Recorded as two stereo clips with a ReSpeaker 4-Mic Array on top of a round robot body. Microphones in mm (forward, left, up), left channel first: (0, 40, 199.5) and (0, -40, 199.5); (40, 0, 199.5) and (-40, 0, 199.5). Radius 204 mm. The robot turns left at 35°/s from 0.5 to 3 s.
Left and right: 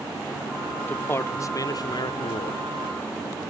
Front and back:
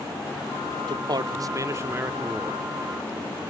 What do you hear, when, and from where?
0.9 s a man speaking: 160° left; by 2.6 s 95° left